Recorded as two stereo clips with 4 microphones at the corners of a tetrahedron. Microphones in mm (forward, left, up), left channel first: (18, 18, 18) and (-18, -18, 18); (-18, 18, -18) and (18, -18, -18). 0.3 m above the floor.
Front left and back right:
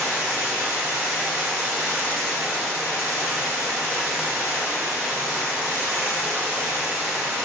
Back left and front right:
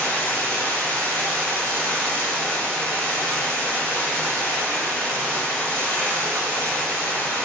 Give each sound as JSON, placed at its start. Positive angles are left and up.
{"t": 0.0, "sound": "running water", "azimuth_deg": -165, "distance_m": 1.6}